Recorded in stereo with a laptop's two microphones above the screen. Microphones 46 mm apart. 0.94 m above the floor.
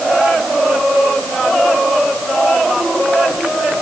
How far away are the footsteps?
No footsteps in this recording.